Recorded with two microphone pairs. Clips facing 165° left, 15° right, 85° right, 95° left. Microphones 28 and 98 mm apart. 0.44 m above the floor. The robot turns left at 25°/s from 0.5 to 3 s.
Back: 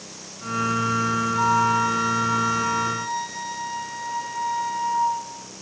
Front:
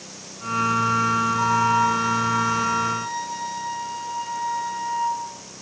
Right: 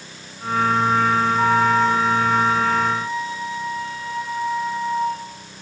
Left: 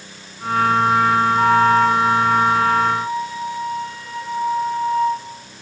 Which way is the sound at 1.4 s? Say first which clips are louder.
Back 2 dB, left 4 dB; 130° left.